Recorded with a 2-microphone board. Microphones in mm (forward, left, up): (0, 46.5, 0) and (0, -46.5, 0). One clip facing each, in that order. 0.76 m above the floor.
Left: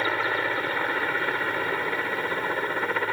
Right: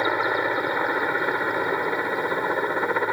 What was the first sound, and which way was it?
A helicopter, 20° right (ahead or behind).